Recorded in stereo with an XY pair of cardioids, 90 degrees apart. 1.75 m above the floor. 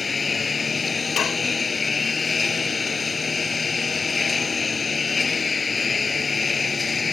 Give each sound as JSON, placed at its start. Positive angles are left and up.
{"t": 0.0, "sound": "a lawn mower", "azimuth_deg": 40}
{"t": 1.2, "sound": "dishes clattering", "azimuth_deg": 65}